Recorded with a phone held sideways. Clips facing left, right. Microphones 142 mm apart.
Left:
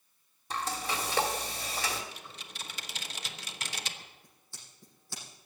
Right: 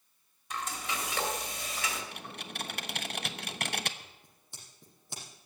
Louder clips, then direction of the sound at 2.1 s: Right 6 dB; 60° right (ahead or behind).